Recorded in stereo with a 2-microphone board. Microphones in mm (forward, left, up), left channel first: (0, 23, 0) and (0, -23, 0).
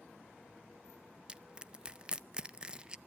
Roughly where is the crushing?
Centre.